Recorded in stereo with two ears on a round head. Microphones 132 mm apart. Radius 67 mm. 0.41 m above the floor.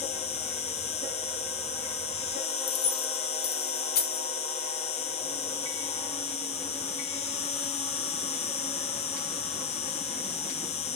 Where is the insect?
45° left (ahead or behind), 1.3 m.